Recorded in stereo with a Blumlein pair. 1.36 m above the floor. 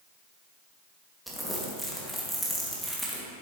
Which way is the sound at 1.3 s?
Straight ahead.